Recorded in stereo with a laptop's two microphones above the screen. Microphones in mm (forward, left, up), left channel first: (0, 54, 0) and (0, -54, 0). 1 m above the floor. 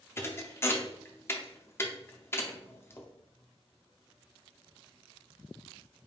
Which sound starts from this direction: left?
A thud, at 0.2 s.